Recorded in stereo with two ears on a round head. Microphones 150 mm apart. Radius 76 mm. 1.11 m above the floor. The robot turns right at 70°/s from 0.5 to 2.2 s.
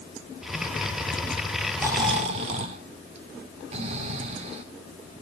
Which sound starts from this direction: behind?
Snoring, at 1.8 s.